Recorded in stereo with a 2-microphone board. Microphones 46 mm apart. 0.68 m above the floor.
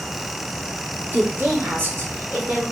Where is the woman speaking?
45° right (ahead or behind), 1.8 m; by 2.6 s 50° right (ahead or behind), 3 m.